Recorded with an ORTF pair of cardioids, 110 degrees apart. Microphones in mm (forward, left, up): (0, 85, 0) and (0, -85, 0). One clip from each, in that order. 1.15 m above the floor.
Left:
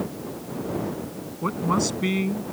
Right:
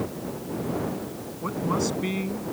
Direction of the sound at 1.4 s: 30° left.